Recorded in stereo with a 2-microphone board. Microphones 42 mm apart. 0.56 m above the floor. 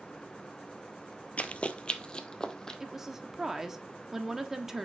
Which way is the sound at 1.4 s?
35° left (ahead or behind).